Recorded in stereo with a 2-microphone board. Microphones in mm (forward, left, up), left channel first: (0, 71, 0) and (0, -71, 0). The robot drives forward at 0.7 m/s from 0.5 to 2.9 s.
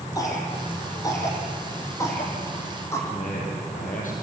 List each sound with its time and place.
0.1 s a cough: 25° left (ahead or behind), 6.5 m; by 3.0 s 20° left (ahead or behind), 8 m
3.1 s a man speaking: 70° left (ahead or behind), 6 m